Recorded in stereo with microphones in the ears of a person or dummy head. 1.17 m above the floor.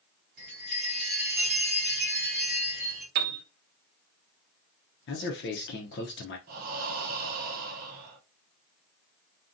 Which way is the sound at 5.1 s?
50° left (ahead or behind).